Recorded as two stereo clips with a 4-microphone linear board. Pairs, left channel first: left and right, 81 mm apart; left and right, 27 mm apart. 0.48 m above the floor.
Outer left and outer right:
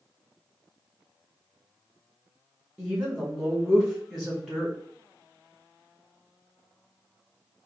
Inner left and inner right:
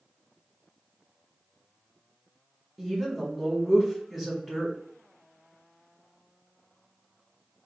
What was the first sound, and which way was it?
A woman speaking, centre (ahead or behind).